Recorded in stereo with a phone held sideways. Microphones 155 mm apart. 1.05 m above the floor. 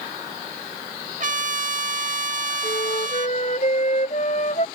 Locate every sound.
1.2 s a trumpet: 55° right (ahead or behind)
2.6 s a flute: 50° left (ahead or behind)